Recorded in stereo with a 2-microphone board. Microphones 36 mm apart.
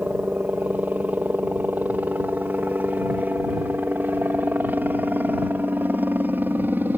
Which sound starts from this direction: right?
A helicopter, at 0.0 s.